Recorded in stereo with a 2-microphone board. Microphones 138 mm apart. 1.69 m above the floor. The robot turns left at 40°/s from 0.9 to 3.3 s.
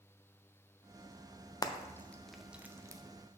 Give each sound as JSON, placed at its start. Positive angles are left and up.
{"t": 1.6, "sound": "frying", "side_deg": 30, "distance_m": 0.5}